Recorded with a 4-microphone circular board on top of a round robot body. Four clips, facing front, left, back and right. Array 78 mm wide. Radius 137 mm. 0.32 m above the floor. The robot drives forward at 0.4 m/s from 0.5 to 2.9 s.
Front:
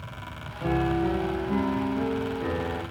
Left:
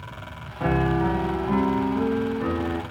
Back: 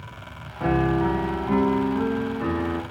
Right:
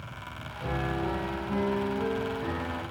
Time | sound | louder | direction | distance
0.6 | a piano | left 9 dB, back 4 dB | 130° left | 0.6 m